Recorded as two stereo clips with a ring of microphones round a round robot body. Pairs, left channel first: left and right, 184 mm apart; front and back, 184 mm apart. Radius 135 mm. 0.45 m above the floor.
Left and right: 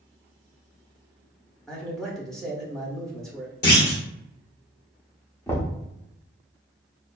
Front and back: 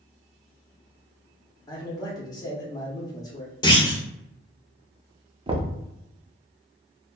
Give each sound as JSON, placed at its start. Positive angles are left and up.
{"t": 1.7, "sound": "a man speaking", "azimuth_deg": 10, "distance_m": 0.7}
{"t": 3.6, "sound": "a clunk", "azimuth_deg": 65, "distance_m": 1.2}
{"t": 5.5, "sound": "knocking", "azimuth_deg": 155, "distance_m": 0.5}